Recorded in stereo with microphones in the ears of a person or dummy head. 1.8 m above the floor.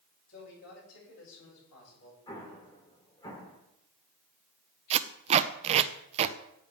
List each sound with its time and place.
0.3 s a man speaking: 85° left, 7 m
2.3 s an explosion: 20° left (ahead or behind), 3 m
4.9 s tape being pulled: 40° right (ahead or behind), 0.6 m